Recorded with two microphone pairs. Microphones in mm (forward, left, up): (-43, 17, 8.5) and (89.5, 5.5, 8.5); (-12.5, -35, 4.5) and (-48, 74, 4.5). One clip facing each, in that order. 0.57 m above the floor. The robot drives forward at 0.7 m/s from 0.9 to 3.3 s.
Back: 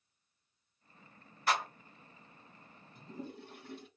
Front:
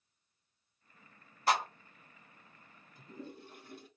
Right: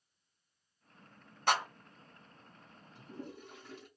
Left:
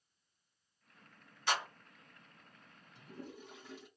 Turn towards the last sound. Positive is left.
turn(degrees=-170)